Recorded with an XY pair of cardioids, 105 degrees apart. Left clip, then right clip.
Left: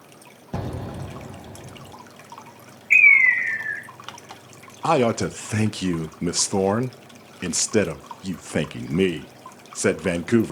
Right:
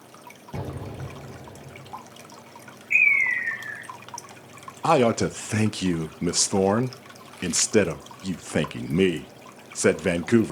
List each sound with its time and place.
0.5 s an explosion: 50° left, 2 m
2.9 s a bird: 60° left, 1.8 m
4.8 s a man speaking: 5° right, 0.5 m